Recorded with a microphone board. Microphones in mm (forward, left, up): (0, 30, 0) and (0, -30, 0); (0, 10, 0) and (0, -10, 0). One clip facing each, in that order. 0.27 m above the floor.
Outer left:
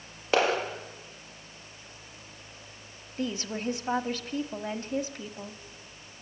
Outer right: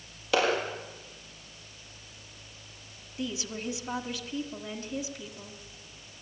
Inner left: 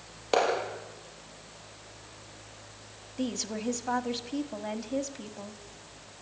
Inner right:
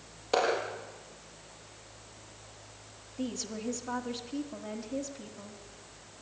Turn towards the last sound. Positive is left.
turn(degrees=45)  # may be behind; listen again after turning